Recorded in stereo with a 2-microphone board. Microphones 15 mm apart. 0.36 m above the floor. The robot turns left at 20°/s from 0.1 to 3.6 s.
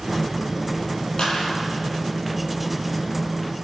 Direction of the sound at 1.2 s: 55° left (ahead or behind).